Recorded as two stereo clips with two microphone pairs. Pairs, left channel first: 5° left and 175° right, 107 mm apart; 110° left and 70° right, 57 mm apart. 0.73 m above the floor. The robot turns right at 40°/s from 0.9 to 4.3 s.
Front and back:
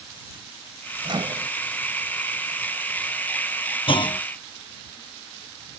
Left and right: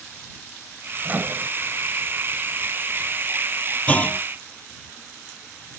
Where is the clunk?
40° left; by 4.2 s 55° left.